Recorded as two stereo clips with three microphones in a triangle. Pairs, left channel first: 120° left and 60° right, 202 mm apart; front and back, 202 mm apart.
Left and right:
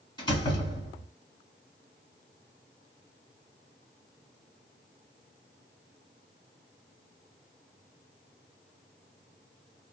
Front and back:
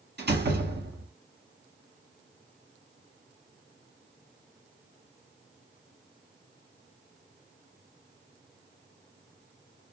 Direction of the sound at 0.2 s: 175° right.